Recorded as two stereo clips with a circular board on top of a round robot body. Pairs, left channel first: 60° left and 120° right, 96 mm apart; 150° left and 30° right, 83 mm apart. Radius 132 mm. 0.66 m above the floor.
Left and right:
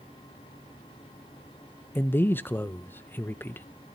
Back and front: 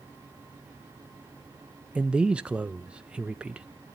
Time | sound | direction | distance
1.9 | a man speaking | 30° left | 0.6 m